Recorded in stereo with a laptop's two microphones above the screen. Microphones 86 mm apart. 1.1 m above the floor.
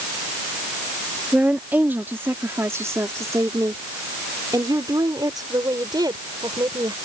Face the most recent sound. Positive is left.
turn(degrees=-55)  # may be behind; listen again after turning